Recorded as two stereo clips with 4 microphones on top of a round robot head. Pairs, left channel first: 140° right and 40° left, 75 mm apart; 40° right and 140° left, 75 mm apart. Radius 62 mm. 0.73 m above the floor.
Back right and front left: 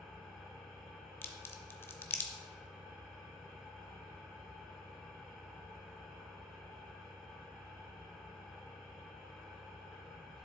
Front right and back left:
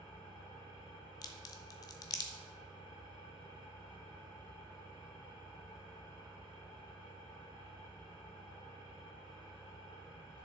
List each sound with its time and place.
0.0 s an engine running: 60° right, 4 m
1.2 s a crack: 80° right, 0.7 m